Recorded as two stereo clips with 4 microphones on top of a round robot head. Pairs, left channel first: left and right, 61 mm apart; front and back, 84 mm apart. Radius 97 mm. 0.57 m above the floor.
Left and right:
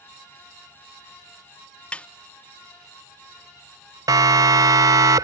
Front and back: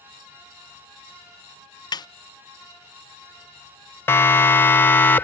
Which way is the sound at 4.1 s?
65° right.